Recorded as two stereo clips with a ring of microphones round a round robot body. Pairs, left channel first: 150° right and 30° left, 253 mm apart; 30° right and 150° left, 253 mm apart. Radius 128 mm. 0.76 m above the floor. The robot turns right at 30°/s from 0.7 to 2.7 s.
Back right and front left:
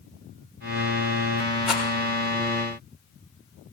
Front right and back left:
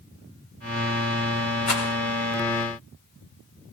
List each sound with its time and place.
1.7 s a rattle: 60° right, 3 m; by 1.9 s 55° right, 3 m